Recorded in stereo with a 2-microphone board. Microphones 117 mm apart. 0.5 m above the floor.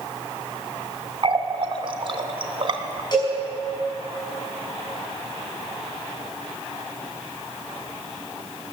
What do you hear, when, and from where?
1.2 s a running tap: 45° right (ahead or behind), 0.7 m
3.1 s a cowbell: 35° left (ahead or behind), 5.5 m